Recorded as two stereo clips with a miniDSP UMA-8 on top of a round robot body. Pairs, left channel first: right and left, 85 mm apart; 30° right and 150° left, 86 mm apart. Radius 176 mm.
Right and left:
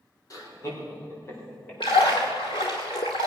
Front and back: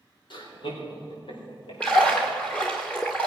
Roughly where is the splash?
Right.